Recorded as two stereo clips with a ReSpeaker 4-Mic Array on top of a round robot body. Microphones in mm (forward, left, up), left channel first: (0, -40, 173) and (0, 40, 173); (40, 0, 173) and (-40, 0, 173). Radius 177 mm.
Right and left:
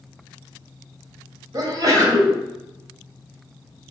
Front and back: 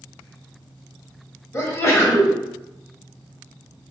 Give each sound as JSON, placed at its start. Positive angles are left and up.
{"t": 1.5, "sound": "a sneeze", "azimuth_deg": 50, "distance_m": 1.1}